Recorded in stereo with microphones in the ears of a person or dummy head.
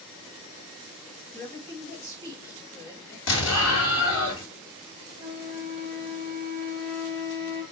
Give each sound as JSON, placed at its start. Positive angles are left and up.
{"t": 1.3, "sound": "a woman speaking", "side_deg": 10, "distance_m": 2.0}
{"t": 3.3, "sound": "an explosion", "side_deg": 80, "distance_m": 1.9}
{"t": 5.2, "sound": "a flute", "side_deg": -10, "distance_m": 3.0}